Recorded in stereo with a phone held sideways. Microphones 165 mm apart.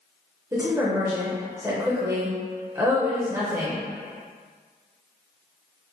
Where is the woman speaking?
20° right (ahead or behind), 0.7 m.